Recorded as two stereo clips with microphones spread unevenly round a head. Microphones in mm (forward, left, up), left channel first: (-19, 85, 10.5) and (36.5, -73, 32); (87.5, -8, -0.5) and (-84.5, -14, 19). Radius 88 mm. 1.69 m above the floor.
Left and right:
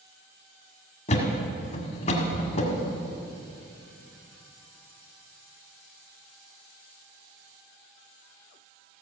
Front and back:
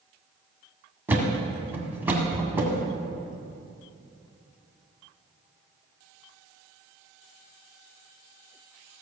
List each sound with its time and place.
1.1 s a thud: 130° left, 1.7 m